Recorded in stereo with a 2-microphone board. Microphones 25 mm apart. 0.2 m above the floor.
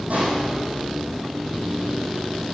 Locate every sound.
0.1 s a pop: 70° right (ahead or behind), 5.5 m